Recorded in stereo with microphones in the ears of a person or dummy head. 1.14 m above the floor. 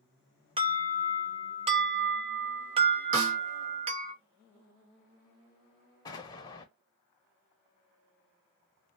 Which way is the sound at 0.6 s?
30° right (ahead or behind).